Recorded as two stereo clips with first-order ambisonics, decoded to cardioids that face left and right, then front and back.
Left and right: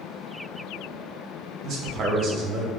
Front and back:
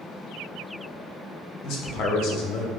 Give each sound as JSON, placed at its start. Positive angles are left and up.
{"t": 1.6, "sound": "a man speaking", "azimuth_deg": -40, "distance_m": 0.6}